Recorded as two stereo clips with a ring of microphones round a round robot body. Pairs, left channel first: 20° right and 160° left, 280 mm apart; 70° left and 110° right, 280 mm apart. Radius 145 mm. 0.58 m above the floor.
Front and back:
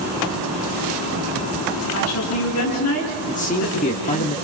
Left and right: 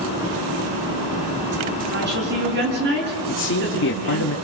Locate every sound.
1.9 s a woman speaking: 60° right, 6 m
3.3 s a man speaking: 35° left, 1.5 m